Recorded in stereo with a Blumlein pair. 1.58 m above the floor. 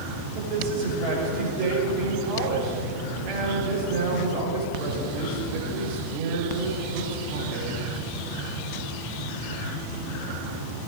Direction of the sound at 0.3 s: 45° right.